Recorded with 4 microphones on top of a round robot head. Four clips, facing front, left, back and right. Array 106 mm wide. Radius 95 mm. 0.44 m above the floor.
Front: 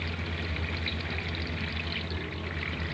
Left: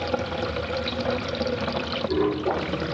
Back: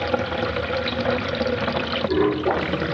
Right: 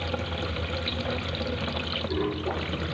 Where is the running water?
160° left.